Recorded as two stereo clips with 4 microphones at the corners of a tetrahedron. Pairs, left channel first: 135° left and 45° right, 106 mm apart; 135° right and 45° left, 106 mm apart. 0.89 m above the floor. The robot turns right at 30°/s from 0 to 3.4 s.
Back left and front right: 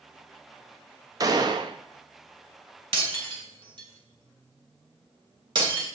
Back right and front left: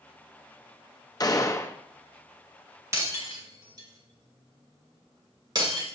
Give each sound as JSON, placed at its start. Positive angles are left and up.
{"t": 1.2, "sound": "a gunshot", "azimuth_deg": -90, "distance_m": 0.7}
{"t": 2.9, "sound": "breaking glass", "azimuth_deg": -20, "distance_m": 2.5}